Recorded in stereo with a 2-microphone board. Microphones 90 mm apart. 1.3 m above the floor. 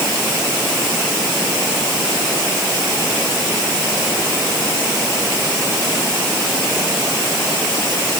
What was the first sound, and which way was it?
Only background noise.